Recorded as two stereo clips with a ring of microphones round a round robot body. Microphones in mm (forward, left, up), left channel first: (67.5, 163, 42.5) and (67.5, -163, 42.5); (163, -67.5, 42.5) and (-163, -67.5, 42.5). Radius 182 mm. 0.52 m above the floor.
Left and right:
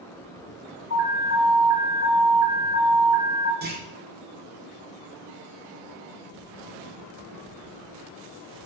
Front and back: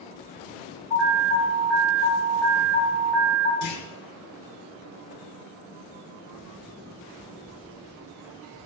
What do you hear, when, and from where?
0.9 s an alarm: 40° left, 3 m
3.6 s a clunk: 30° right, 1.3 m